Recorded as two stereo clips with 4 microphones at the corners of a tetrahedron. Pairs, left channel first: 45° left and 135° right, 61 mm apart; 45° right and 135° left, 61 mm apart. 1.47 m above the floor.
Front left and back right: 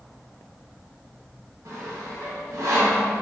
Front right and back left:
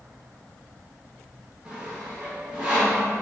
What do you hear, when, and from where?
1.6 s sawing: 155° right, 1.3 m